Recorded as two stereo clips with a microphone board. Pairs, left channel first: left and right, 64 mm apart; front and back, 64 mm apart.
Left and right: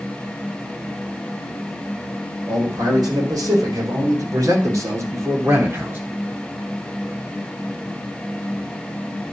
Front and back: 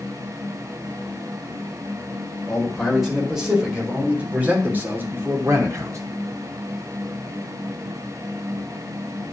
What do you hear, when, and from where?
2.5 s a man speaking: 90° right, 4.5 m; by 6.0 s 145° right, 3 m